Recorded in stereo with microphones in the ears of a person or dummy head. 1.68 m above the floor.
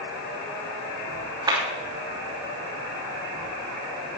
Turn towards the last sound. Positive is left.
turn(degrees=-30)  # may be behind; listen again after turning